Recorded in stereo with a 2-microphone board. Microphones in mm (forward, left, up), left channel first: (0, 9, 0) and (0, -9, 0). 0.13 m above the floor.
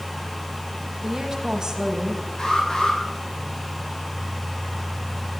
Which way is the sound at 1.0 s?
25° right (ahead or behind).